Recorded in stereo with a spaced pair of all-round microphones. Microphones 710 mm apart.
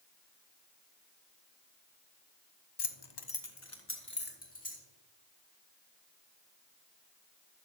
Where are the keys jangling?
35° left (ahead or behind), 0.7 m; by 4.8 s 10° left (ahead or behind), 2.5 m.